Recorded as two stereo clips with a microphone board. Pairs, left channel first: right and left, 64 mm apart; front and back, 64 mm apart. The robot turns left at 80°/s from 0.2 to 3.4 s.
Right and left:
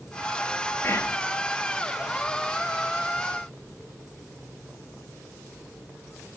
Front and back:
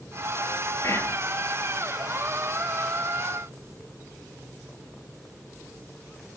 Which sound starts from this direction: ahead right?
Whispering, at 0.8 s.